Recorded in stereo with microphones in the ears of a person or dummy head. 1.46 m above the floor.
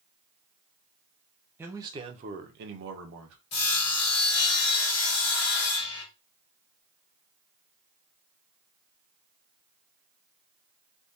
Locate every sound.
1.6 s a man speaking: 10° right (ahead or behind), 0.9 m; by 3.4 s 75° right (ahead or behind), 1.0 m
3.5 s sawing: 55° left (ahead or behind), 1.7 m